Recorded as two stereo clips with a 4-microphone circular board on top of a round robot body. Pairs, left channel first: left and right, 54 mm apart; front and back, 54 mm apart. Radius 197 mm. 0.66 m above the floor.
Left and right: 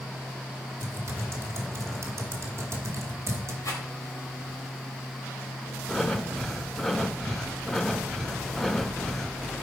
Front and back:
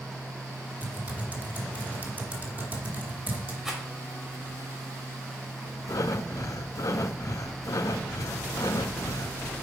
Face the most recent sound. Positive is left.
turn(degrees=10)